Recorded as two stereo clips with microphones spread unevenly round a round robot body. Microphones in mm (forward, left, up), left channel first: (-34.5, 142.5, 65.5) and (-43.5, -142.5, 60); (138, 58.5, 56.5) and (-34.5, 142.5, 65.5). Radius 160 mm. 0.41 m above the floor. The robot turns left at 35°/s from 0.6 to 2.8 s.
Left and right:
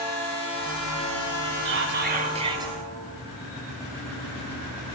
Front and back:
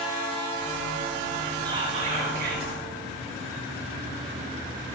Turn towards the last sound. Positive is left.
turn(degrees=-175)